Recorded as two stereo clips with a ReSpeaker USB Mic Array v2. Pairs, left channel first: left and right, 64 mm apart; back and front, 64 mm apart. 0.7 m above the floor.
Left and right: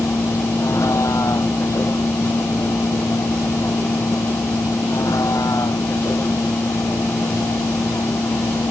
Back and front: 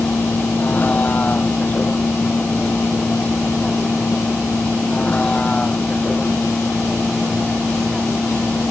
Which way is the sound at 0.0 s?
120° left.